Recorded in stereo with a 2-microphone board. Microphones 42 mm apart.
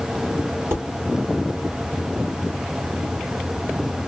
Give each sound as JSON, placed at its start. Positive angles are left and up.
{"t": 0.7, "sound": "dishes clattering", "side_deg": -70, "distance_m": 1.7}